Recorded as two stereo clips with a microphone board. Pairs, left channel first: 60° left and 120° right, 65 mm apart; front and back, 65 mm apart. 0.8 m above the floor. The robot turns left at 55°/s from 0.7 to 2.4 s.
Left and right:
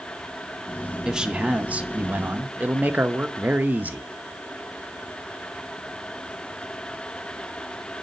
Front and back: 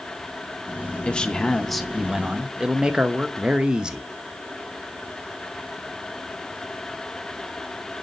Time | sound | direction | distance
1.1 | a man speaking | 50° right | 0.8 m